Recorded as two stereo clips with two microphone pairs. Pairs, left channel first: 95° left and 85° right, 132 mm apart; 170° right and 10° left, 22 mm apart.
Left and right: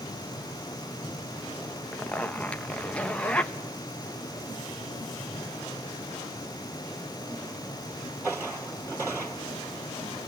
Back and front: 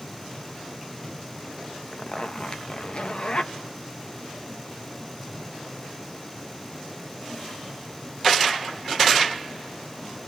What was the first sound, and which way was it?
A zipper, 175° left.